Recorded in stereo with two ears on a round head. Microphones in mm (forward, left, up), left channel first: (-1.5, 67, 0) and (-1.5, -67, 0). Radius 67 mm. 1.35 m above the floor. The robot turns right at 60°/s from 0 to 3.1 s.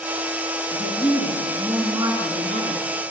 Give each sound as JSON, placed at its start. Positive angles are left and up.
{"t": 0.7, "sound": "a woman speaking", "azimuth_deg": 120, "distance_m": 4.0}